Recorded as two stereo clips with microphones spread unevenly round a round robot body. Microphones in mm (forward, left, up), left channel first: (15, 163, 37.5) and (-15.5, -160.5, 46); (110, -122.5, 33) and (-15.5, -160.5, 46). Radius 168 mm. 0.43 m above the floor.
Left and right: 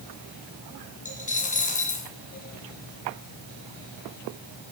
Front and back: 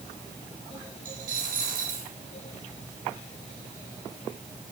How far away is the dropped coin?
About 2.5 m.